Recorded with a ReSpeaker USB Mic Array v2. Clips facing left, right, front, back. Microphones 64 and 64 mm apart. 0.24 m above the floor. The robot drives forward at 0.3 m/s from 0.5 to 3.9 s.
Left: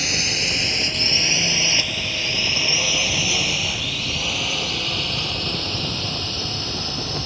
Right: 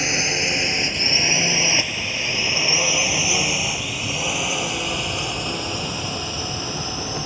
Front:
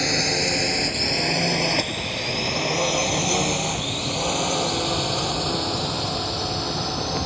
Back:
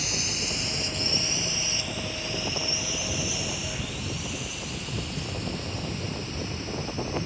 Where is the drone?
25° right; by 7.3 s 15° right.